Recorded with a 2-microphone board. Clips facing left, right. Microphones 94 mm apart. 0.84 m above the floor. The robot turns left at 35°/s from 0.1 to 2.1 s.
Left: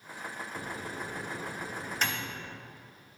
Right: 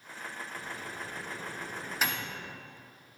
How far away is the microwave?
About 0.5 m.